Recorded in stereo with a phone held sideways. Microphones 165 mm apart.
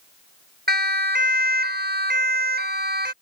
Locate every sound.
0.7 s a siren: 85° right